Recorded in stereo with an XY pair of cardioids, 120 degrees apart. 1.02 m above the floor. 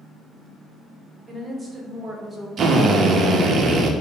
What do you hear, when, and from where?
1.3 s a woman speaking: 25° right, 0.9 m
2.6 s a drill: 45° right, 0.6 m